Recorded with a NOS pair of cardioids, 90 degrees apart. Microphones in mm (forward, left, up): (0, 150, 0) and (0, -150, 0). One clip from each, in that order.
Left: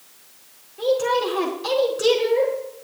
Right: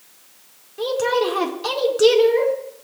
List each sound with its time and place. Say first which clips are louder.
0.8 s a woman speaking: even; 40° right, 4.5 m